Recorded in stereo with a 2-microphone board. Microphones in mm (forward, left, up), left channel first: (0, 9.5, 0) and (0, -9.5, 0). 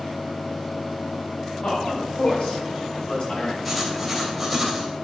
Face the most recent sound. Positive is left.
turn(degrees=0)  # may be behind; listen again after turning